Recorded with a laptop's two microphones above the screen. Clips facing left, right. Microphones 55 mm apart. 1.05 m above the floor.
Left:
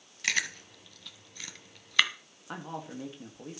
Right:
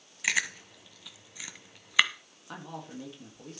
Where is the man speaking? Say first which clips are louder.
Left 2 dB; 15° left (ahead or behind), 2 m.